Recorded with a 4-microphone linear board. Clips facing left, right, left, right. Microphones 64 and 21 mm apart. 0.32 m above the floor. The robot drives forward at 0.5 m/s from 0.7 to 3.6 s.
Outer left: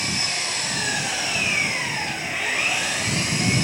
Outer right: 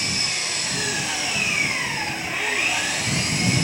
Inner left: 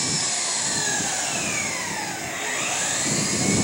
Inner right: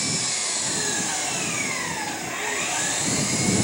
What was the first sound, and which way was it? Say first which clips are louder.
An engine running: outer left 1 dB, inner left 1 dB; 40° left (ahead or behind).